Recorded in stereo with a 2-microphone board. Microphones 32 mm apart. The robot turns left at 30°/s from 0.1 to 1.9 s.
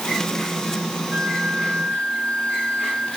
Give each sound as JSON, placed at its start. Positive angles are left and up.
{"t": 1.1, "sound": "a flute", "side_deg": -65, "distance_m": 7.0}